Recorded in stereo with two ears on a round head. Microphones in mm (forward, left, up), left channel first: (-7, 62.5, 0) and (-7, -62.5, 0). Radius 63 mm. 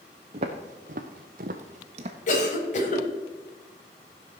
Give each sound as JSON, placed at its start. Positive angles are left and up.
{"t": 0.3, "sound": "footsteps", "side_deg": -45, "distance_m": 1.8}
{"t": 2.3, "sound": "a cough", "side_deg": 55, "distance_m": 3.5}